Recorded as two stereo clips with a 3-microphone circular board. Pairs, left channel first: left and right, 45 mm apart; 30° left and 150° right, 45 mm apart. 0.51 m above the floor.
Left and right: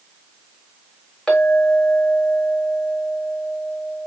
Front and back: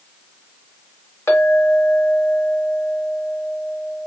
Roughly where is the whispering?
I don't hear whispering.